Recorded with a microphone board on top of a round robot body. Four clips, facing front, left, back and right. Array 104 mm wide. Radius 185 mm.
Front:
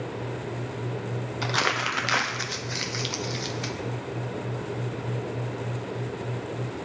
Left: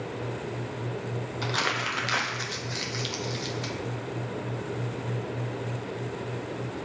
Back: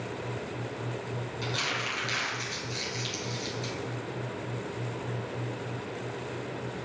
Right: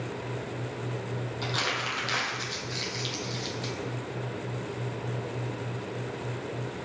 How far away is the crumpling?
About 0.7 m.